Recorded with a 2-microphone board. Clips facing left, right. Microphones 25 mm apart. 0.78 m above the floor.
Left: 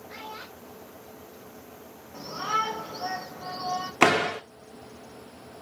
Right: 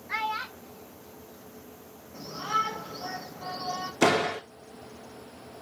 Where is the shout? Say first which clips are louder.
Left 1 dB; 35° left (ahead or behind), 3 m.